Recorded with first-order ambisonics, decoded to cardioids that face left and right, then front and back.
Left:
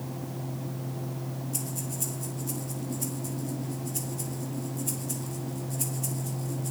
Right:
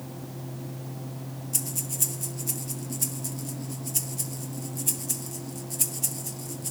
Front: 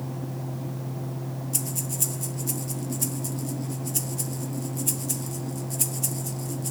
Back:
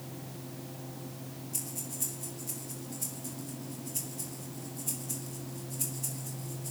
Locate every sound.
1.5 s breathing: 35° right, 1.2 m